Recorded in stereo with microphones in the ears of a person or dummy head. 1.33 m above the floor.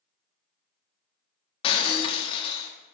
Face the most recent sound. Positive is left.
turn(degrees=30)  # may be behind; listen again after turning